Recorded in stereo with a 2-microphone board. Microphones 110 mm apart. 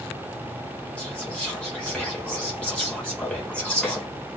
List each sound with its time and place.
1.0 s whispering: 10° left (ahead or behind), 0.6 m